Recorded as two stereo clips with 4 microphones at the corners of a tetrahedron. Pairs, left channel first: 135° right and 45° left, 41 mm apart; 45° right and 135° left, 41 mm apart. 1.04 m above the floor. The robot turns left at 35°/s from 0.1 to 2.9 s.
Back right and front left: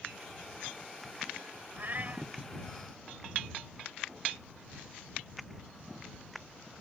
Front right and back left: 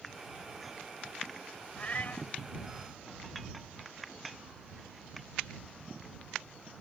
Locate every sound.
1.8 s a cat meowing: 10° left; by 2.3 s 10° right